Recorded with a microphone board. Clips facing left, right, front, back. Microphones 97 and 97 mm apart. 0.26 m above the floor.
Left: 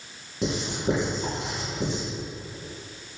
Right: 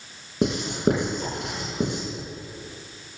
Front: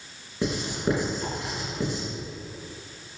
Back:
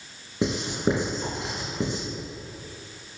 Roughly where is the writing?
Behind right.